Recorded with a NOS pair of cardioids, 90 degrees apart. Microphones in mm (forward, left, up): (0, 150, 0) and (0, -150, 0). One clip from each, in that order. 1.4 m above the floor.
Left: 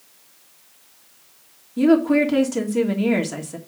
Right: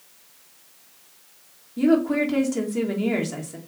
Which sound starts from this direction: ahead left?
A woman speaking, at 1.8 s.